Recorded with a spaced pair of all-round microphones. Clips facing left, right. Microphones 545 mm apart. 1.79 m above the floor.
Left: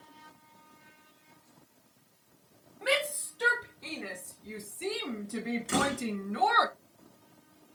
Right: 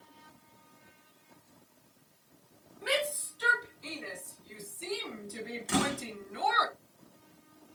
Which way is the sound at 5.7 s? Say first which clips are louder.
Right 2 dB; 15° right (ahead or behind).